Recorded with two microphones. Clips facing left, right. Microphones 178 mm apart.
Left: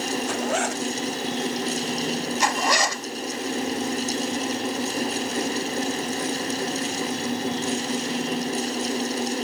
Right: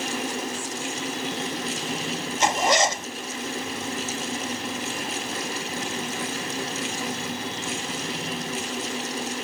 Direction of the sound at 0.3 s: 80° left.